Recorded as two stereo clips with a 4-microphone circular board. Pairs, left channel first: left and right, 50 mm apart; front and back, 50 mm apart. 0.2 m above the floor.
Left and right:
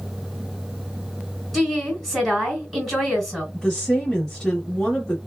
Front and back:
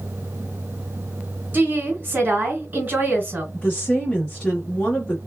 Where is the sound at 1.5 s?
170° left, 1.8 m.